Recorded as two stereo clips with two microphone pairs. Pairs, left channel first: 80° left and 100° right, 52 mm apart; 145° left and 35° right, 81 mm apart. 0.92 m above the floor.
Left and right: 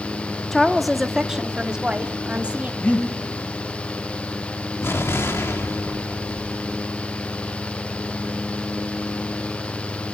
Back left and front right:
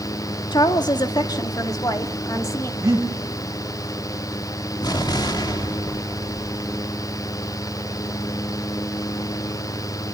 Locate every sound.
0.5 s a woman speaking: 165° left, 1.5 m; by 2.7 s 160° right, 2 m
2.8 s breathing: 15° left, 7.5 m
4.8 s an explosion: 115° left, 2.5 m